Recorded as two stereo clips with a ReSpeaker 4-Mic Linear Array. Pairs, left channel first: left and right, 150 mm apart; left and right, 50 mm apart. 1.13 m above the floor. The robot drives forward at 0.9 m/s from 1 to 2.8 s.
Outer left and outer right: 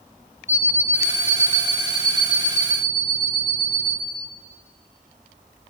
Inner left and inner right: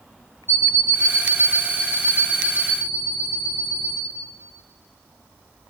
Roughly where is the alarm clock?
Left.